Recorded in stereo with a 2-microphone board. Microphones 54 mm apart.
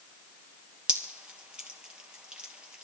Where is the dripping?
20° right (ahead or behind), 2 m.